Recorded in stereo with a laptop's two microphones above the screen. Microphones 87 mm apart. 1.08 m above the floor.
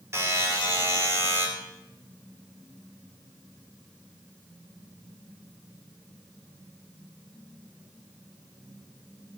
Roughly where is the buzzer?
Right.